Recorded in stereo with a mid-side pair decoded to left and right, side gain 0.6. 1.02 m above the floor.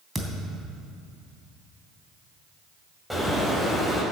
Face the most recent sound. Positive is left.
turn(degrees=0)